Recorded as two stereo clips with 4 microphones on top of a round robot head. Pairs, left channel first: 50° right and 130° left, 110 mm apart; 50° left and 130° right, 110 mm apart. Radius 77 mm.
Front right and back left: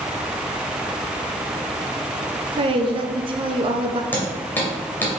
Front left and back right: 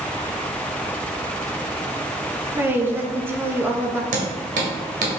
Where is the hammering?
125° right, 1.7 m.